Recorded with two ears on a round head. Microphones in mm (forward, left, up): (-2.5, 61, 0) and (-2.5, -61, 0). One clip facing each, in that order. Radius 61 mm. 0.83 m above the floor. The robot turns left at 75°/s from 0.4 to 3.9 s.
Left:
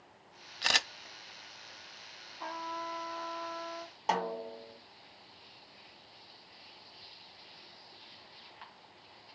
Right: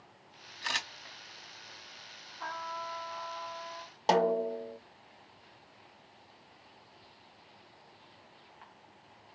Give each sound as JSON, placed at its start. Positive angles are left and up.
{"t": 0.6, "sound": "a camera shutter", "side_deg": 70, "distance_m": 0.5}
{"t": 2.4, "sound": "a trumpet", "azimuth_deg": 165, "distance_m": 0.7}
{"t": 4.1, "sound": "a snare drum", "side_deg": -40, "distance_m": 0.6}